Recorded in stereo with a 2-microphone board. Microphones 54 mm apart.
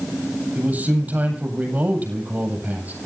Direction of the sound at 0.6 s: 30° right (ahead or behind).